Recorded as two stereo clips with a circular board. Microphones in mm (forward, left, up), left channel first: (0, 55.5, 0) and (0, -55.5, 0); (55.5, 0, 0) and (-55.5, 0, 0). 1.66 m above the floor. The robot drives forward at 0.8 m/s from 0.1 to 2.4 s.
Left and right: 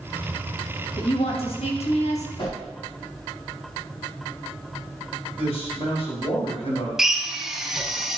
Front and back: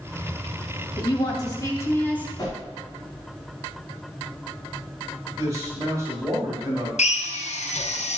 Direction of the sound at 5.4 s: 120° left.